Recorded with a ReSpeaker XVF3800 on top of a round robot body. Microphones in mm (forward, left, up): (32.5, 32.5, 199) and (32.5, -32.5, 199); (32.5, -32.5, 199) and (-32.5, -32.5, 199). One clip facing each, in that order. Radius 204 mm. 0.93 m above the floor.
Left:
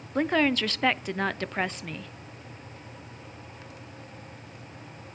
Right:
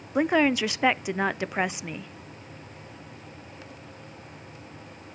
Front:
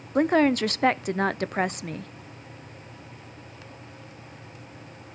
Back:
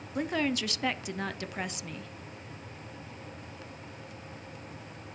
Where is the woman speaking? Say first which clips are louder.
Right 2 dB, front 10 dB; 15° right, 0.6 m.